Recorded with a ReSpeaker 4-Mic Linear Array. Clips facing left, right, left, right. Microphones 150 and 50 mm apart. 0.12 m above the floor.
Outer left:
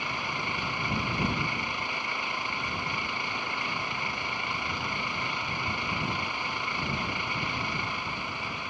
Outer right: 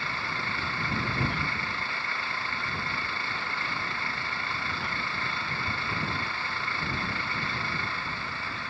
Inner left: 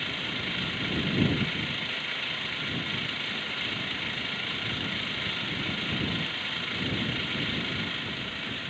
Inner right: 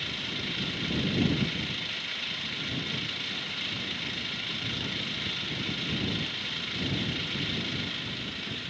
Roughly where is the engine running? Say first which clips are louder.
Outer left 1 dB, inner left 2 dB; centre.